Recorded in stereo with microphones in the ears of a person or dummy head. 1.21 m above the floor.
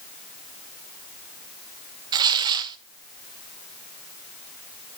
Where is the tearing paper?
25° right (ahead or behind), 0.5 m.